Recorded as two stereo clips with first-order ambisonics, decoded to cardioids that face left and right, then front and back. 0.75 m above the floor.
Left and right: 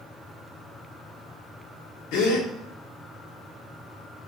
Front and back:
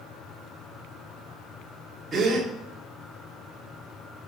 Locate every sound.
2.1 s a gasp: 110° left, 1.7 m